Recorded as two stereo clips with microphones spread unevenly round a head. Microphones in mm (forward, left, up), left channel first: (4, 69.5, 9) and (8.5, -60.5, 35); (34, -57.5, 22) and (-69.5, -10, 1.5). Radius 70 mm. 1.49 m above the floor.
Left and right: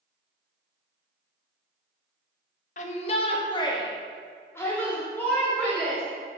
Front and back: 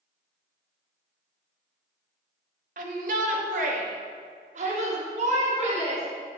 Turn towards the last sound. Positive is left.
turn(degrees=175)